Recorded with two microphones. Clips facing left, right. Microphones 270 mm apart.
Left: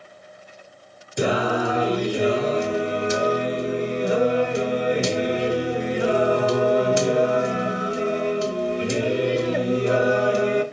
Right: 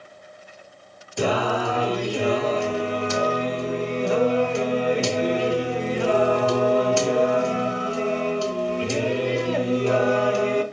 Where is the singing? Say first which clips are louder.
Left 1 dB; 20° left (ahead or behind), 0.7 m.